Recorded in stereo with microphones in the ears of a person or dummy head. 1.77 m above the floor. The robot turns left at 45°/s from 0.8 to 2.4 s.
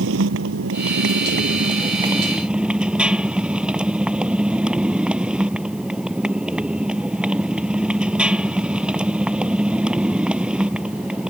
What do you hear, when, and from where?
0.0 s a motorcycle: 100° right; by 11.3 s 170° right